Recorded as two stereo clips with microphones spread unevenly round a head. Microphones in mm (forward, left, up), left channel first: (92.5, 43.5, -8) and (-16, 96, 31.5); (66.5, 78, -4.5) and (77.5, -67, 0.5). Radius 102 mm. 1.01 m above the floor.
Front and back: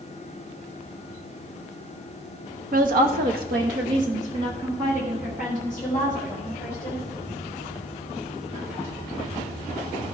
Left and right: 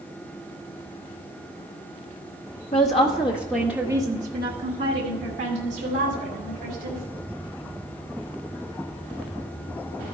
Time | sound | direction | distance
2.7 | a woman speaking | 145° left | 1.4 m